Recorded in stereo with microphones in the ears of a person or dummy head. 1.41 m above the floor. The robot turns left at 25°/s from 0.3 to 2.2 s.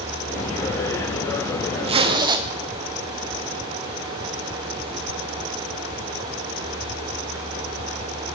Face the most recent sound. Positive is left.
turn(degrees=-20)  # may be behind; listen again after turning